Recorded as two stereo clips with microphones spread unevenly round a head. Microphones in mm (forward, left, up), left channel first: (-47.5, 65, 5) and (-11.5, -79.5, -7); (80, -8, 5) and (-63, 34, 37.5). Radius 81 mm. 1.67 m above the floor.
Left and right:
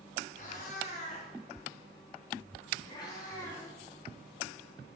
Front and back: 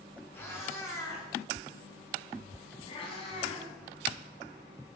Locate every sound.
0.3 s a cat meowing: 60° left, 6 m; by 5.0 s 15° left, 4.5 m